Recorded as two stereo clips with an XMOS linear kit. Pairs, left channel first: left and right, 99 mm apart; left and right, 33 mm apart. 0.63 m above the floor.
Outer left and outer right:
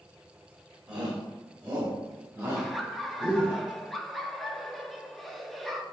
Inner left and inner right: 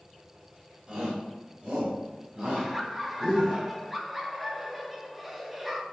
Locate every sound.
0.9 s a shout: 10° right (ahead or behind), 2.5 m; by 3.6 s 15° right (ahead or behind), 5.5 m
2.6 s laughter: centre (ahead or behind), 0.8 m